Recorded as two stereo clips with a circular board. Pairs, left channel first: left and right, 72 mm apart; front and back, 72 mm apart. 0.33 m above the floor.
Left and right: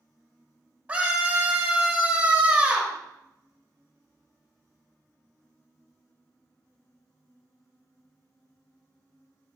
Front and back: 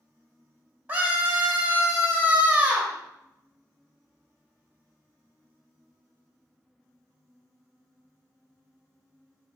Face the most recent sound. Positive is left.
turn(degrees=-140)